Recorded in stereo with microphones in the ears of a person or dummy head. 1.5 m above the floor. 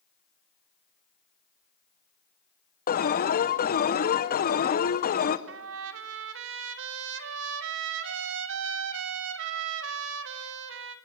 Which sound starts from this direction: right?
A trumpet, at 5.5 s.